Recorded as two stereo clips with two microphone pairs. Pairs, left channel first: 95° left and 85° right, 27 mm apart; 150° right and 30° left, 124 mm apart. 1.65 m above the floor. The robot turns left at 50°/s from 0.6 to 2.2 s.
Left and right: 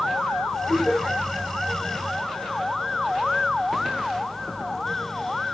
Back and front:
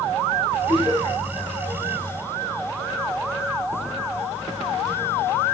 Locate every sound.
0.7 s laughter: straight ahead, 4 m; by 1.2 s 25° right, 4 m